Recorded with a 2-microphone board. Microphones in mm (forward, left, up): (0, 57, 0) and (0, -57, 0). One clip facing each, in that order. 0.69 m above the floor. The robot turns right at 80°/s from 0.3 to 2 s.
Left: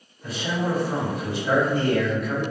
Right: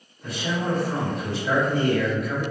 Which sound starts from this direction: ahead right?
A man speaking, at 0.2 s.